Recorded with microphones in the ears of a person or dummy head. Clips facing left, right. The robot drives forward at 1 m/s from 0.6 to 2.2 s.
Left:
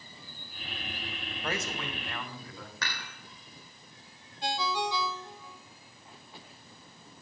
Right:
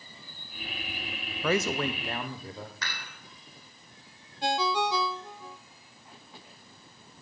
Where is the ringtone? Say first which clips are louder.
Right 4 dB; 50° right (ahead or behind), 0.7 m.